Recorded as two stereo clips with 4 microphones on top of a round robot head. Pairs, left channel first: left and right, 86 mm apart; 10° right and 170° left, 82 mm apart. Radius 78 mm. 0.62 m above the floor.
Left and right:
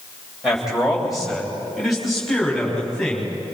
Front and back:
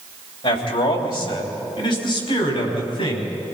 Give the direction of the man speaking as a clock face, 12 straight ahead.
12 o'clock.